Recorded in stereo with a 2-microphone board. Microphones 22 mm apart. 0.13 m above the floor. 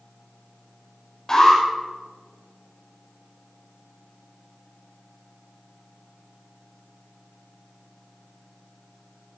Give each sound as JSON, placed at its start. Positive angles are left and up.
{"t": 1.3, "sound": "an alarm", "side_deg": 25, "distance_m": 5.5}